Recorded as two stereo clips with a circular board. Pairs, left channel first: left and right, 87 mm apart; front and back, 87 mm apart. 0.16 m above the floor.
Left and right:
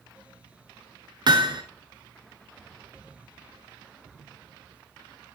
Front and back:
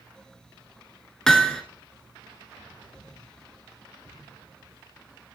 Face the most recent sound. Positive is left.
turn(degrees=-80)